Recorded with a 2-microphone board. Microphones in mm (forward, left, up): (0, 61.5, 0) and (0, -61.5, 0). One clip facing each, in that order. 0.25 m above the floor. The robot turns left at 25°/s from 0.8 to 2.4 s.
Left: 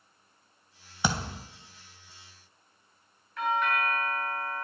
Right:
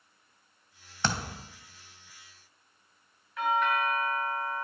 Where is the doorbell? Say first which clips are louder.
Right 1 dB; 10° right (ahead or behind), 2 m.